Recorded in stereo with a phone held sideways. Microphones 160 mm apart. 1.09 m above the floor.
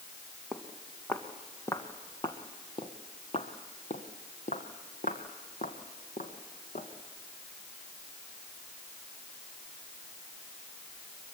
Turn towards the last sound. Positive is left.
turn(degrees=55)  # may be behind; listen again after turning